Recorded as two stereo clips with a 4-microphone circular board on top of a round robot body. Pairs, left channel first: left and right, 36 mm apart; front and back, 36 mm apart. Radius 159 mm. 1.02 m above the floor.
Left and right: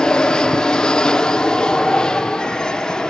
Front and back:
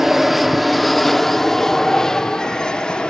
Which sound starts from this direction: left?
An aircraft, at 0.0 s.